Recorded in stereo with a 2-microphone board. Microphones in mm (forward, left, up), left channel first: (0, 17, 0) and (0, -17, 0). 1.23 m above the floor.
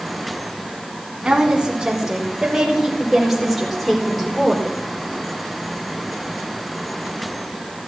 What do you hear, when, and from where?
1.2 s a woman speaking: 20° right (ahead or behind), 3.5 m; by 4.7 s 10° left (ahead or behind), 4 m